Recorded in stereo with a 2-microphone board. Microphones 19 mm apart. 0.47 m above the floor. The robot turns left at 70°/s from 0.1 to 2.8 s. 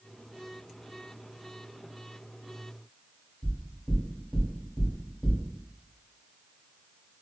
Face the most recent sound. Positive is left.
turn(degrees=5)  # may be behind; listen again after turning